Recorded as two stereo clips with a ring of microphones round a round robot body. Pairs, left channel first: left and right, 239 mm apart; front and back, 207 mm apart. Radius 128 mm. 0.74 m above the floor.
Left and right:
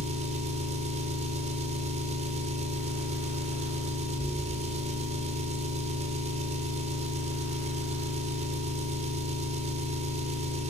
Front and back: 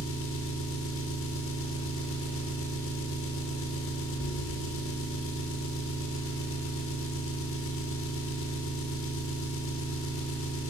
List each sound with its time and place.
0.0 s an engine running: 25° right, 2.5 m